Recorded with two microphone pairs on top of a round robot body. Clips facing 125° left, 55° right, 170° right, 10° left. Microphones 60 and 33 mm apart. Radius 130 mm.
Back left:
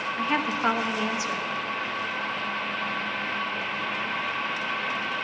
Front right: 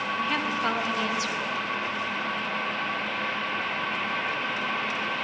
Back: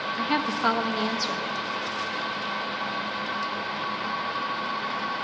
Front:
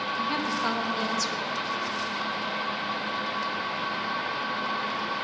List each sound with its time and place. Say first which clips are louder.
0.2 s a woman speaking: back left 4 dB, back 4 dB; 170° left, 1.5 m